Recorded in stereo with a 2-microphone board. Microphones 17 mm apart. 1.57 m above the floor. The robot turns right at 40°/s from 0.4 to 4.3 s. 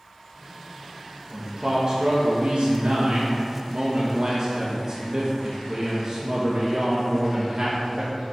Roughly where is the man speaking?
Behind right.